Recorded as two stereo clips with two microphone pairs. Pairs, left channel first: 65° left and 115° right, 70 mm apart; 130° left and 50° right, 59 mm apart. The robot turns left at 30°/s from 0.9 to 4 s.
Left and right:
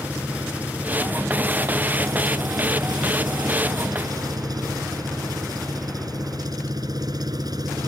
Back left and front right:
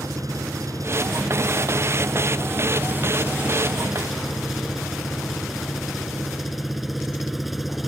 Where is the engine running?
45° right; by 7.9 s 140° right.